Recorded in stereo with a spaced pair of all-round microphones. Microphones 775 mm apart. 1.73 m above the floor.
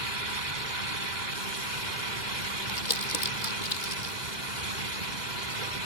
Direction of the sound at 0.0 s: 70° right (ahead or behind).